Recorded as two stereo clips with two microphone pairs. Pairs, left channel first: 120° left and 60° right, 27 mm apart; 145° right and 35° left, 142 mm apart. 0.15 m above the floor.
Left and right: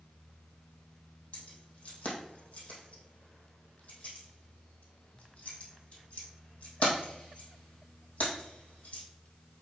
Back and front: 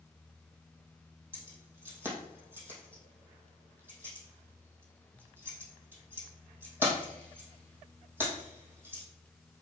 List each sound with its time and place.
1.3 s keys jangling: 105° left, 3.5 m